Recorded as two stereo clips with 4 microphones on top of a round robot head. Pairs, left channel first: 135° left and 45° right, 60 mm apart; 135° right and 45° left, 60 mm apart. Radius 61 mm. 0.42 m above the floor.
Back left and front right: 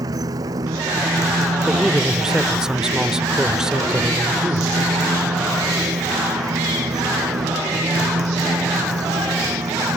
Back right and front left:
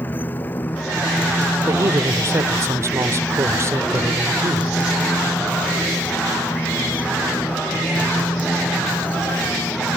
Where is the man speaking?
35° left.